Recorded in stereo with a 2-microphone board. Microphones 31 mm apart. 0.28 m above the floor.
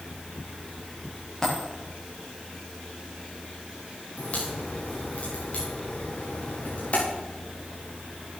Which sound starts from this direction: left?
A crack, at 4.2 s.